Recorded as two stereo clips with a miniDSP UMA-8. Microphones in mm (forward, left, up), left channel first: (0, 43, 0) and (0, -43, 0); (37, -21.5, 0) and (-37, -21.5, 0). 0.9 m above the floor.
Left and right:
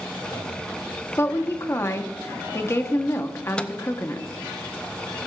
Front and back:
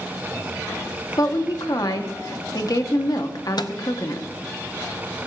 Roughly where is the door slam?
No door slam in this recording.